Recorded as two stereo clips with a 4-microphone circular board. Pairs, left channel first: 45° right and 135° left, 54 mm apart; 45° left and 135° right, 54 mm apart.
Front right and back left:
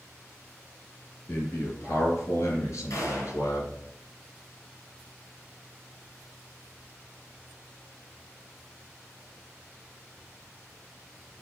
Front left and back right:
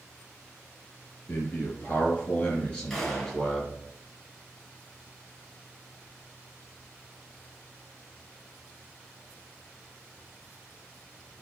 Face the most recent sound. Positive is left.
turn(degrees=-35)